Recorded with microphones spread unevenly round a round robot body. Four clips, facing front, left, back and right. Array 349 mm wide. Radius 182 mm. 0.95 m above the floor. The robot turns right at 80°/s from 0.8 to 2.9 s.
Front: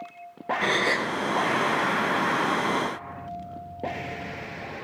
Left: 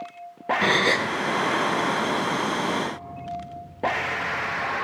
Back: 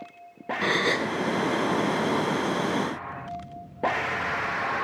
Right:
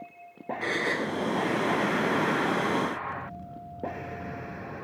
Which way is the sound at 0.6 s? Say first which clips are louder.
Left 6 dB, back 1 dB; 80° left.